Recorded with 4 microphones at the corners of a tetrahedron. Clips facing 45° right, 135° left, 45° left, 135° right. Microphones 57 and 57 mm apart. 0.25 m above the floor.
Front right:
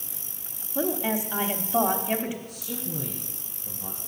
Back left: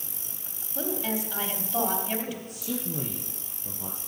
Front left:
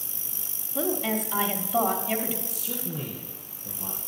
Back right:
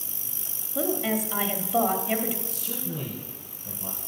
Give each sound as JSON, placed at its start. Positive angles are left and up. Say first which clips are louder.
{"t": 0.8, "sound": "a woman speaking", "louder": "front right 4 dB, back right 1 dB", "azimuth_deg": -60, "distance_m": 0.9}
{"t": 2.5, "sound": "a man speaking", "louder": "back left 2 dB, even", "azimuth_deg": 130, "distance_m": 4.5}